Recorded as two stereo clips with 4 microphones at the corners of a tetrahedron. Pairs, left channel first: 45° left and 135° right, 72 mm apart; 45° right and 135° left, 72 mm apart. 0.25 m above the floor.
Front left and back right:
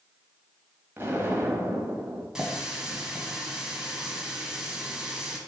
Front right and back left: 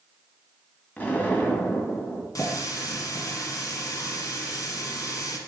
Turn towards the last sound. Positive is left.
turn(degrees=-55)